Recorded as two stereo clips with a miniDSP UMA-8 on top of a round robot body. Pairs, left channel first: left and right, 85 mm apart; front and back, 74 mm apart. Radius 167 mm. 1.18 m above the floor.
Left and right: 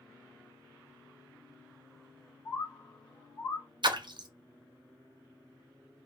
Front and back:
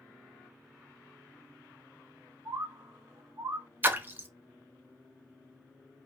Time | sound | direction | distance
2.5 | a bird | 145° left | 0.9 m
3.8 | a splash | 115° right | 0.7 m